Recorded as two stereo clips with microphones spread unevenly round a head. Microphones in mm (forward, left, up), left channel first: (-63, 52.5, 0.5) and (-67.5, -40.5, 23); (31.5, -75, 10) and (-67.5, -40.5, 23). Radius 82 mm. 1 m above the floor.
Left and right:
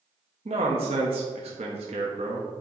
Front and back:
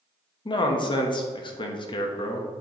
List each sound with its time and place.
0.5 s a man speaking: 50° right, 1.1 m